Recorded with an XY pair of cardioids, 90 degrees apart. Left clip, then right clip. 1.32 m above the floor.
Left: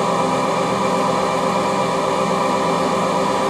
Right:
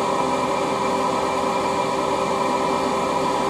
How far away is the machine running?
About 0.9 m.